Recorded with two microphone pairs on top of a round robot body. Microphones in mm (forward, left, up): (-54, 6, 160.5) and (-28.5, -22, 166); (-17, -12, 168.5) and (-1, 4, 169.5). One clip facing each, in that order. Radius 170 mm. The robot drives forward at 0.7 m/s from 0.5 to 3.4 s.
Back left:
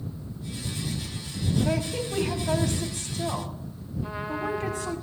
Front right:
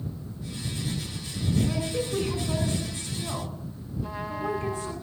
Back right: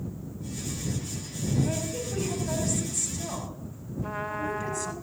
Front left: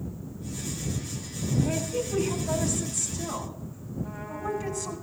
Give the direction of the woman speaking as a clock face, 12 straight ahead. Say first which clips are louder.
Back left 2 dB, front left 4 dB; 8 o'clock.